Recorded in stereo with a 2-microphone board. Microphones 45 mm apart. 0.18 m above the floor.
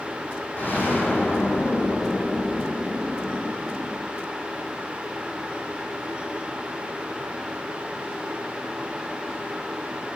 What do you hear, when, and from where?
0.6 s an explosion: 50° left (ahead or behind), 2 m